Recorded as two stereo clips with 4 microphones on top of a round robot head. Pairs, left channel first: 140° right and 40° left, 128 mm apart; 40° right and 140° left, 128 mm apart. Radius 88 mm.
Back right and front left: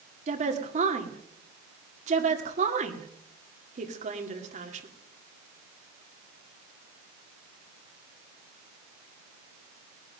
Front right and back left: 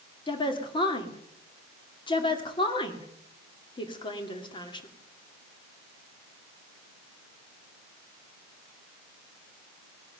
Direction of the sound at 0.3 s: 15° left.